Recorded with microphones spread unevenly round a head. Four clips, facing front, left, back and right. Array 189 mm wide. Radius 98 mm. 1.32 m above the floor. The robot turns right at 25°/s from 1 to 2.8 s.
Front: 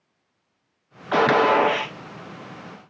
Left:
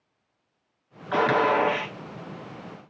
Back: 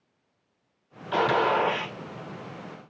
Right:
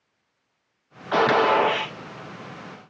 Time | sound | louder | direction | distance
1.1 | a gunshot | right 3 dB, front 6 dB | 25° right | 0.9 m